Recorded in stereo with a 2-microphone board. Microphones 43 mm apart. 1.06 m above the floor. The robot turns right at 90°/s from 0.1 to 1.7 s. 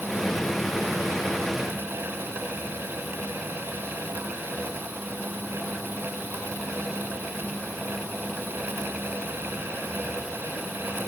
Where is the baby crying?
I don't hear a baby crying.